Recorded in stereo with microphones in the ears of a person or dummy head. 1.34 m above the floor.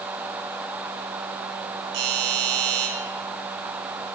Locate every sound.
1.9 s a doorbell: 50° right (ahead or behind), 6.5 m